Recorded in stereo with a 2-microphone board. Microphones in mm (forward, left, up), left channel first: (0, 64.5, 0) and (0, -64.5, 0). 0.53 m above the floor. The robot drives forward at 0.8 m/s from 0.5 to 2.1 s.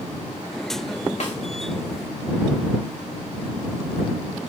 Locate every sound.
1.2 s a snare drum: 60° left (ahead or behind), 2.5 m